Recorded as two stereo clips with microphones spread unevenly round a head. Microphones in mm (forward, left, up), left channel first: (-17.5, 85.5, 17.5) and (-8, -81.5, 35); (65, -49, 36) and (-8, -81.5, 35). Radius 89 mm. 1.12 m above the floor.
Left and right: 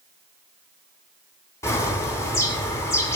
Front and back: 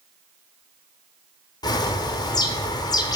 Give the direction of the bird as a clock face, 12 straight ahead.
11 o'clock.